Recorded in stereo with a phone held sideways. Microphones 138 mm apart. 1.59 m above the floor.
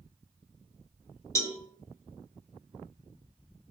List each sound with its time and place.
1.4 s a cowbell: 20° left (ahead or behind), 1.4 m